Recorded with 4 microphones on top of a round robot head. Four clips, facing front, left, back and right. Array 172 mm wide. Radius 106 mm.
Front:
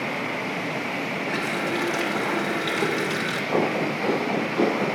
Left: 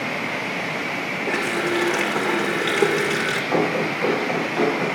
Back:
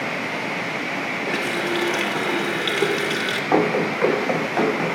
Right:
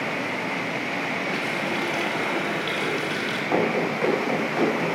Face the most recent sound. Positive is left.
turn(degrees=-175)